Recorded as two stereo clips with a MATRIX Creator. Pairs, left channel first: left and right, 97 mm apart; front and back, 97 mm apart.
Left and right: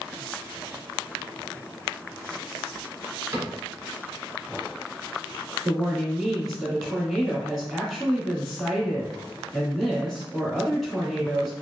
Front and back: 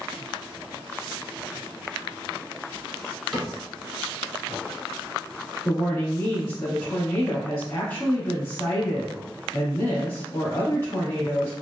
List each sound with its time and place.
3.3 s a cupboard door: 85° right, 1.5 m
5.7 s a woman speaking: 5° right, 1.3 m